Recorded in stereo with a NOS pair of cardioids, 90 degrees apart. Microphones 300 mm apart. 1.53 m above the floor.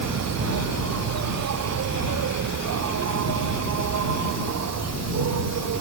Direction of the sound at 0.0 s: 60° right.